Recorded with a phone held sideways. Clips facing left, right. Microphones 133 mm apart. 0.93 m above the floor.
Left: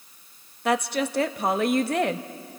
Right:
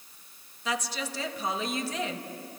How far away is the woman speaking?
About 0.8 m.